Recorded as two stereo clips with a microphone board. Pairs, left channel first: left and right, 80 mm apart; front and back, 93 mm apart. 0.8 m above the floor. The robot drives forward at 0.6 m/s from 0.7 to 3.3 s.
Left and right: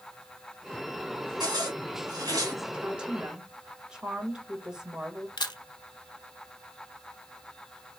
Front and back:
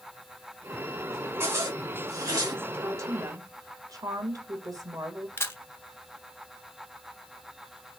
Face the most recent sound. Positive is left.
turn(degrees=65)